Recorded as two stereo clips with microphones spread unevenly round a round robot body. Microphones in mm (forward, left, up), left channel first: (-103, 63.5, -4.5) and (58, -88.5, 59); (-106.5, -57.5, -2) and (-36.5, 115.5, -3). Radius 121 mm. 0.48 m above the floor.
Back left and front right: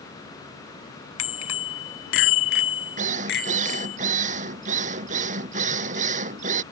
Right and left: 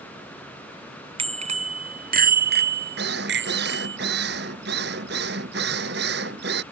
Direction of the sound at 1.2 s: 125° left.